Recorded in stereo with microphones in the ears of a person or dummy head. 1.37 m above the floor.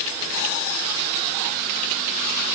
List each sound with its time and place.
Only background noise.